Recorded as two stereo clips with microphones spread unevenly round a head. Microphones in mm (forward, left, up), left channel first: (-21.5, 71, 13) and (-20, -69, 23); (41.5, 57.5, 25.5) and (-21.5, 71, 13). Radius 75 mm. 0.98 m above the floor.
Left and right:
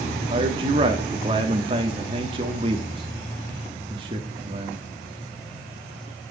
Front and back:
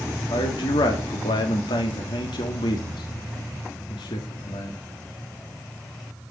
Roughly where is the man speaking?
Ahead right.